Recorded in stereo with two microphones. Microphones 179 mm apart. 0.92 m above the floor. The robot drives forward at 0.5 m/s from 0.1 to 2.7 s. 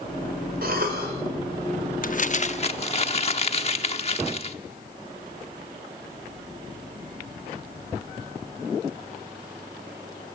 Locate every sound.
0.6 s a cough: 60° right (ahead or behind), 4.5 m
2.0 s crumpling: 55° left (ahead or behind), 0.7 m; by 4.6 s 40° left (ahead or behind), 0.9 m